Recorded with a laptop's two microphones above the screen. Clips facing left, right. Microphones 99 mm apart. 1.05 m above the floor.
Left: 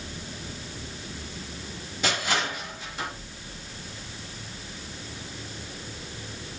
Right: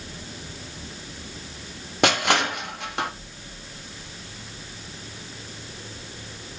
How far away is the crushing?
About 1.1 m.